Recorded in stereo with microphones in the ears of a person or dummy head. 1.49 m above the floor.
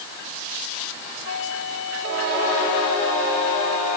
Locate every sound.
1.2 s a flute: 75° left (ahead or behind)